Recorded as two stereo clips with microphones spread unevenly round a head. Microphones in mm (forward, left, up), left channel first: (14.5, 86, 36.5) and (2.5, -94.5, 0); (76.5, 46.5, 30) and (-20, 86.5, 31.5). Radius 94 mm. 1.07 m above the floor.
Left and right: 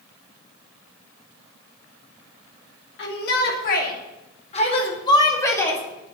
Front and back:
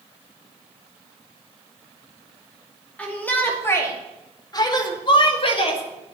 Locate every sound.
3.0 s a shout: 55° left, 2.5 m; by 5.8 s straight ahead, 2.5 m